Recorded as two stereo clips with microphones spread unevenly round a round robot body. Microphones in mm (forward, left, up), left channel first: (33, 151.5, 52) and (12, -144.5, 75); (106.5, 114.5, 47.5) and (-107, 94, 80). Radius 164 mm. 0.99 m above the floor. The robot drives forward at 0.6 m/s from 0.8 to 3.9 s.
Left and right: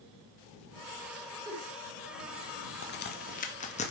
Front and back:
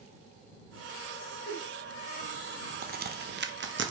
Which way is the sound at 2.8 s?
135° left.